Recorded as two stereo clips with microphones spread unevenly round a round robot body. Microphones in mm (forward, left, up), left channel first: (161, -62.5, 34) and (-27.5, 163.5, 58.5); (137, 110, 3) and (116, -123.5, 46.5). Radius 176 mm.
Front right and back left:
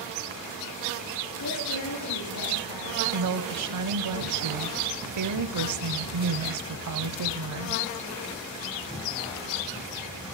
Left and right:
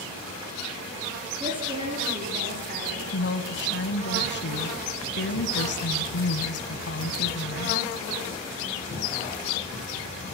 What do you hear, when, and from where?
1.4 s a woman speaking: 20° right, 4.5 m; by 3.0 s 45° right, 3 m
3.1 s a woman speaking: 115° left, 1.8 m